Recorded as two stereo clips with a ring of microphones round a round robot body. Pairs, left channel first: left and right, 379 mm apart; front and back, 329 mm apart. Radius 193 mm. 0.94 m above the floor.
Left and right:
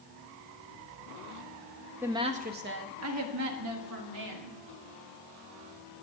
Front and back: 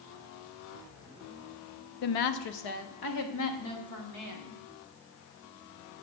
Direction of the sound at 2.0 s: 5° right.